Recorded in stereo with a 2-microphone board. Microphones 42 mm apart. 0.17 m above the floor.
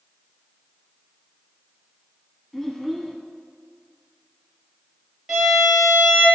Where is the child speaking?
5° left (ahead or behind), 0.8 m.